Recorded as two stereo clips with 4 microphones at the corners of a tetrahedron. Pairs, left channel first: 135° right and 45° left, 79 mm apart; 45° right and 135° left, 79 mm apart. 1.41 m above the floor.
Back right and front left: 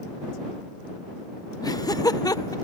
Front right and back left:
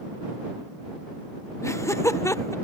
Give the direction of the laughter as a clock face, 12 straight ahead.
3 o'clock.